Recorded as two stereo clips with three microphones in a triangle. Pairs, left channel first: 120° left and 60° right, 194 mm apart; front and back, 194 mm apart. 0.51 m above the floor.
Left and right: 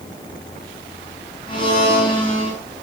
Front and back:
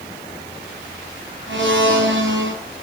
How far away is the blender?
About 9 m.